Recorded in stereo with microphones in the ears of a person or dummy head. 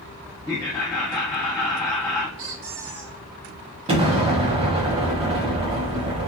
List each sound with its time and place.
0.5 s laughter: 10° left (ahead or behind), 0.6 m
2.4 s a squeak: 70° right (ahead or behind), 0.9 m
3.9 s an explosion: 35° right (ahead or behind), 1.3 m